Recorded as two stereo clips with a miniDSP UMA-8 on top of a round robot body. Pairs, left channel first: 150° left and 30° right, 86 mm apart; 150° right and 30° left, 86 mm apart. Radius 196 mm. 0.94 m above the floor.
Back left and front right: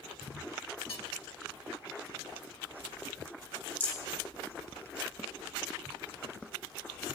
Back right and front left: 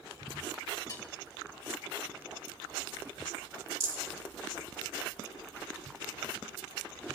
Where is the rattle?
80° left, 2.5 m.